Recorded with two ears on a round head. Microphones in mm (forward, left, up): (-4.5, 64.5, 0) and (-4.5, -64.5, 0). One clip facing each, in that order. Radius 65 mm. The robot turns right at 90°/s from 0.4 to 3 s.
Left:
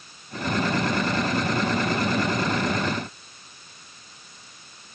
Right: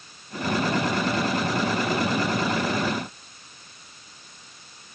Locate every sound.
Only background noise.